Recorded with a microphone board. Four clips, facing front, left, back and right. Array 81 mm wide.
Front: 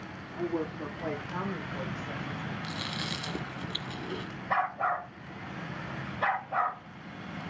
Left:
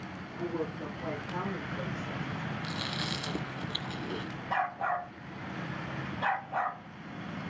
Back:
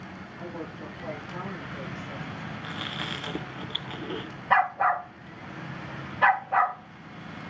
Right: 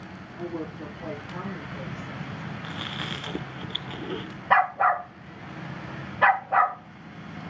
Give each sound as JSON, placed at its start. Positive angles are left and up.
{"t": 0.4, "sound": "a woman speaking", "azimuth_deg": -15, "distance_m": 9.5}
{"t": 2.6, "sound": "chewing", "azimuth_deg": -130, "distance_m": 1.0}
{"t": 4.5, "sound": "a dog barking", "azimuth_deg": -105, "distance_m": 3.0}